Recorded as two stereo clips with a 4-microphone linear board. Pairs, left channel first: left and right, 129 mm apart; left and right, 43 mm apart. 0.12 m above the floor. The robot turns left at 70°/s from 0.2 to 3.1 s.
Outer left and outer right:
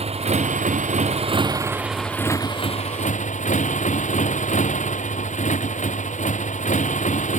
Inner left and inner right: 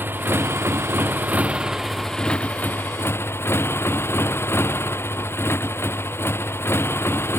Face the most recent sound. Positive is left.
turn(degrees=100)